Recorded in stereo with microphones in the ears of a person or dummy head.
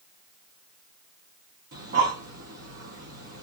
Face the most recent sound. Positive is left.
turn(degrees=-50)  # may be behind; listen again after turning